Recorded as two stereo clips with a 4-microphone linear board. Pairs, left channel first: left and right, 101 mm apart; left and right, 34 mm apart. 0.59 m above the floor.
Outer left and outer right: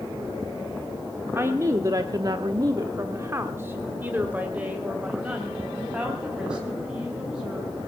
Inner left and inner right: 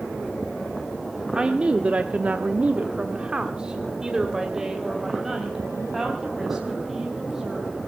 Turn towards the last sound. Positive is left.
turn(degrees=-10)  # may be behind; listen again after turning